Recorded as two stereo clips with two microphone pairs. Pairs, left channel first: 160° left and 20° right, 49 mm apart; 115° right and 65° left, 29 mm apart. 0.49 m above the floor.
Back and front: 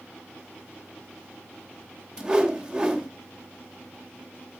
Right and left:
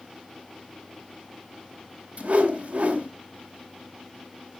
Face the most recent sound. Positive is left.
turn(degrees=45)